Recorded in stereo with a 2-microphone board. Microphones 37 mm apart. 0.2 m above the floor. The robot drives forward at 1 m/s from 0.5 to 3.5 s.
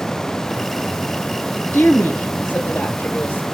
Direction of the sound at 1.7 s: 65° left (ahead or behind).